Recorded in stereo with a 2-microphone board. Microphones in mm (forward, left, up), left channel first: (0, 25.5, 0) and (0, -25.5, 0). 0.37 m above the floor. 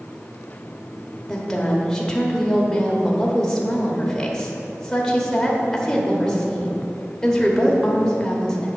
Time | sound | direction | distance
1.3 | a woman speaking | 10° left (ahead or behind) | 1.1 m